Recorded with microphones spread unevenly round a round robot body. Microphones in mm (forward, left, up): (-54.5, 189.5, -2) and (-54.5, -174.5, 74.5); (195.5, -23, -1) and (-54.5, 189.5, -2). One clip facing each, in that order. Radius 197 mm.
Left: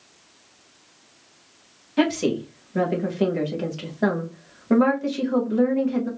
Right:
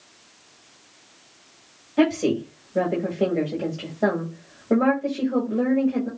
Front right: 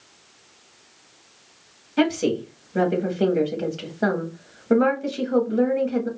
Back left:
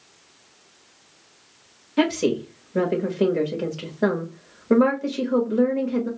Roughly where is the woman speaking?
Ahead left.